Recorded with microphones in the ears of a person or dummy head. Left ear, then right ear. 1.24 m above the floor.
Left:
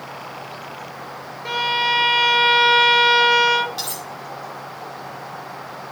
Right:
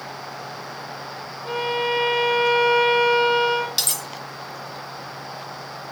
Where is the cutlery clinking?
30° right (ahead or behind), 1.0 m.